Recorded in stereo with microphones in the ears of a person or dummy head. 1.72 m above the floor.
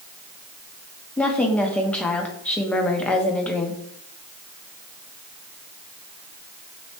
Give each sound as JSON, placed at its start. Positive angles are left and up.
{"t": 1.2, "sound": "a woman speaking", "side_deg": 10, "distance_m": 0.6}